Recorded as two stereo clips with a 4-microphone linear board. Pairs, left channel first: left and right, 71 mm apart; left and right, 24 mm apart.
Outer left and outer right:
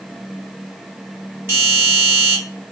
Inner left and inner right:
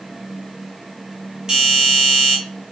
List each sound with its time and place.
1.5 s a doorbell: 30° right (ahead or behind), 2.0 m